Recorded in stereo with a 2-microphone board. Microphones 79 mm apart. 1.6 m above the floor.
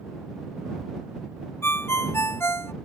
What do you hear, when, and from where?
1.6 s a ringtone: 30° left (ahead or behind)